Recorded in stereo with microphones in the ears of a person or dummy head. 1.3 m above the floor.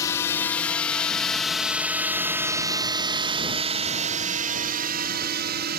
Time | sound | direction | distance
0.0 | a drone | 15° left (ahead or behind) | ?